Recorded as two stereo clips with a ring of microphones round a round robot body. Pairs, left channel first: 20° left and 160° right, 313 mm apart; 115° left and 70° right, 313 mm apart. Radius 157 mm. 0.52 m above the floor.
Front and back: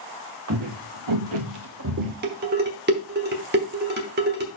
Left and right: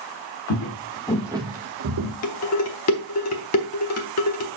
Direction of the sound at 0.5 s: 155° left.